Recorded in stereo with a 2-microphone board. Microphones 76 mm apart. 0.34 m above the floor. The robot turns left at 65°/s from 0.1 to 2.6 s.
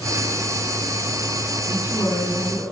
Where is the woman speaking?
135° left, 4 m; by 2.6 s 75° left, 4 m.